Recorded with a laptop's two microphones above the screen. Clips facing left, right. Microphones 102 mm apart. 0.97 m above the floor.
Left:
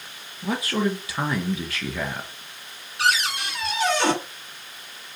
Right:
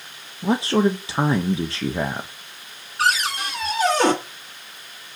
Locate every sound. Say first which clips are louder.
0.4 s a man speaking: right 6 dB; 25° right (ahead or behind), 0.6 m
3.0 s a cupboard door: right 2 dB; 40° right (ahead or behind), 2.5 m